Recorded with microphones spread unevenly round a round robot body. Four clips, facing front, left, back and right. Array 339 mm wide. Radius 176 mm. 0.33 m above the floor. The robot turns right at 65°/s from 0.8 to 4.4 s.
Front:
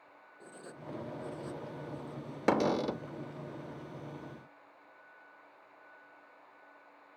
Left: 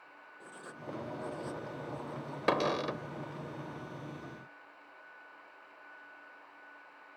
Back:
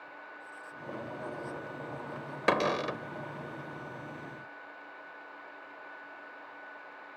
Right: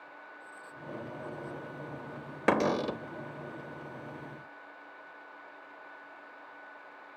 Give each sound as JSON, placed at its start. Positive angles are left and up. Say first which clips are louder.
{"t": 0.4, "sound": "writing", "louder": "left 3 dB, even", "azimuth_deg": 35}
{"t": 2.5, "sound": "a cupboard door", "louder": "right 3 dB, even", "azimuth_deg": -100}